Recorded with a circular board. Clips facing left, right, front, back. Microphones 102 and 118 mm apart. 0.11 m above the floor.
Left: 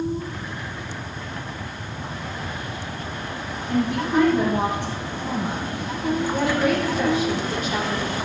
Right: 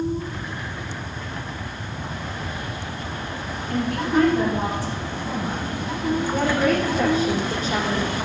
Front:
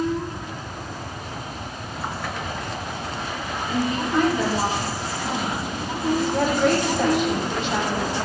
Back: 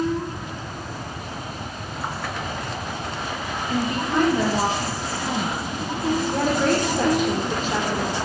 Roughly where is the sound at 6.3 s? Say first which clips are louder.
Right 1 dB, front 1 dB; behind right.